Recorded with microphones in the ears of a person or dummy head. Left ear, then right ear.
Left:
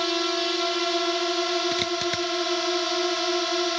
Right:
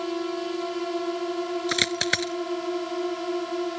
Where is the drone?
65° left (ahead or behind).